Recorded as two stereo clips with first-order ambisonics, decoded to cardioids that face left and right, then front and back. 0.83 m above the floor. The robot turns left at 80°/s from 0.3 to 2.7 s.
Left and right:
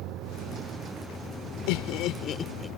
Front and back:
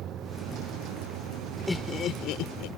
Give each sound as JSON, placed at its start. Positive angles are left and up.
{"t": 0.0, "sound": "a vehicle", "azimuth_deg": -125}
{"t": 1.7, "sound": "laughter", "azimuth_deg": 85}